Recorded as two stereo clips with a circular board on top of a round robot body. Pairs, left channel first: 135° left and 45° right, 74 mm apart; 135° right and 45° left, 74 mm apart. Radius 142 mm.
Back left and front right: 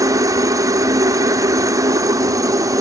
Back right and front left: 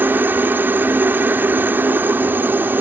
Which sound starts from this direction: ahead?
A helicopter, at 0.0 s.